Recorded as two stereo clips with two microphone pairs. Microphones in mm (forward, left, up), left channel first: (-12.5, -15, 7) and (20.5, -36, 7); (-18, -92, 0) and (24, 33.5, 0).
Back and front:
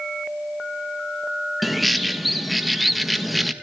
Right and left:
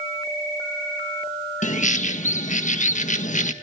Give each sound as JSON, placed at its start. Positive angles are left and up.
{"t": 1.6, "sound": "a bird", "azimuth_deg": -120, "distance_m": 1.6}